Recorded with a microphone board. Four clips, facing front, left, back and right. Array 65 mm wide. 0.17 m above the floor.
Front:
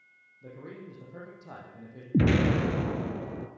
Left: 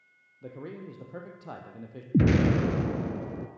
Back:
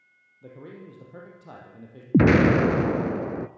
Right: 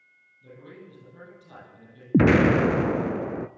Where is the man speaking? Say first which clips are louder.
Left 5 dB, back 1 dB; 105° left, 6 m.